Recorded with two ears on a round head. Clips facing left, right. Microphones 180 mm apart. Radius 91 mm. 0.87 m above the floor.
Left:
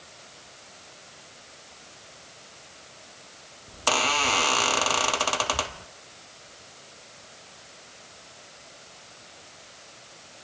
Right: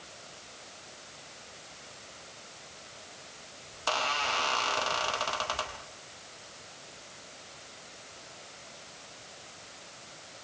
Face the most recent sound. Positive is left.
turn(degrees=60)  # may be behind; listen again after turning